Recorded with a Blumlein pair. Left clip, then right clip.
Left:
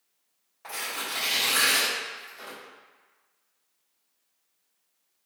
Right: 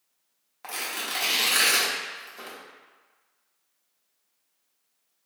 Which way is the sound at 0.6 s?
45° right.